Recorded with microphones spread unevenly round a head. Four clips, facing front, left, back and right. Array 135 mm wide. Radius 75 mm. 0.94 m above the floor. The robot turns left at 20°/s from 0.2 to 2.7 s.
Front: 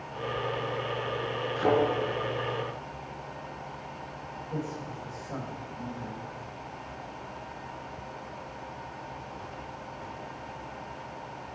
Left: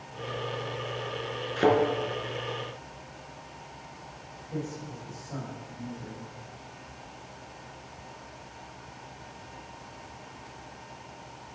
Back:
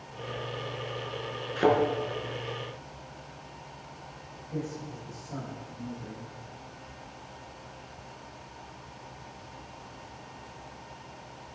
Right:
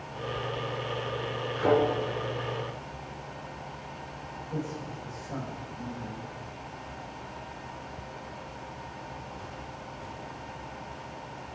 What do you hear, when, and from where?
1.6 s a thud: 115° left, 4.5 m; by 1.8 s 110° left, 4.5 m
4.5 s a man speaking: 5° right, 5 m